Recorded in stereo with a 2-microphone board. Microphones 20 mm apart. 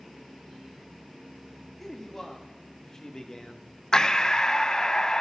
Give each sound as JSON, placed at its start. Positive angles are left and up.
{"t": 1.8, "sound": "a man speaking", "side_deg": 15, "distance_m": 2.5}
{"t": 3.9, "sound": "breathing", "side_deg": 35, "distance_m": 0.5}